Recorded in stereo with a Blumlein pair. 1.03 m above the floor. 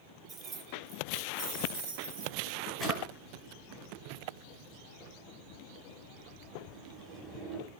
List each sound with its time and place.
0.3 s keys jangling: 15° right, 0.8 m; by 2.6 s 55° right, 2.5 m
2.8 s a drawer: straight ahead, 1.6 m